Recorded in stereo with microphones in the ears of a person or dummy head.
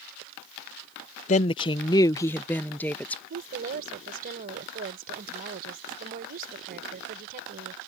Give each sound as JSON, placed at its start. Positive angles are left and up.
{"t": 1.3, "sound": "a woman speaking", "side_deg": 40}
{"t": 3.3, "sound": "a woman speaking", "side_deg": -45}